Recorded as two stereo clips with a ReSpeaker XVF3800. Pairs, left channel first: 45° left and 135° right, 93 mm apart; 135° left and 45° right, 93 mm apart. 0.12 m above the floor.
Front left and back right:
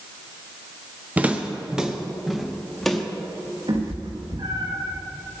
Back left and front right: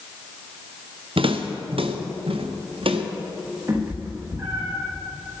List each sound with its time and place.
1.2 s footsteps: 60° right, 1.5 m; by 3.0 s 40° right, 2.5 m
3.7 s a cat meowing: 110° right, 5.5 m